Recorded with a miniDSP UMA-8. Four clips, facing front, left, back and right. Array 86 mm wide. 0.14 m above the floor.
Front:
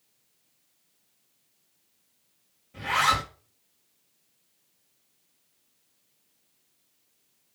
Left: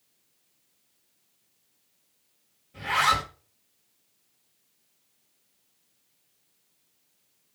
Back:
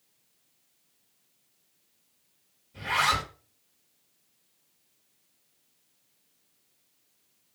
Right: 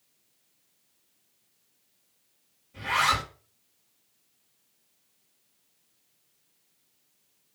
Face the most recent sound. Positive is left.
turn(degrees=5)